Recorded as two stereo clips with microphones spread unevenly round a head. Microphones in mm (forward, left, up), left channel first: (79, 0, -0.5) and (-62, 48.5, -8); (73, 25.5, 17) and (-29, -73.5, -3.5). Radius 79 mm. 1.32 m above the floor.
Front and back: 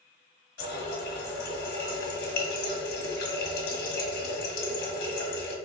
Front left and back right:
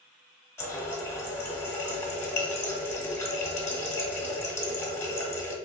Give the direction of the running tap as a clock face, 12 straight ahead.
1 o'clock.